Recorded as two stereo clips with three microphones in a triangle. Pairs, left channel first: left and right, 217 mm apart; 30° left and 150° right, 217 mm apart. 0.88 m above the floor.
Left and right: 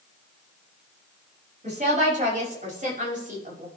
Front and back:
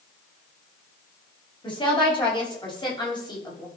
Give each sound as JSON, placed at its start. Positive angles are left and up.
{"t": 1.6, "sound": "a woman speaking", "azimuth_deg": -35, "distance_m": 6.0}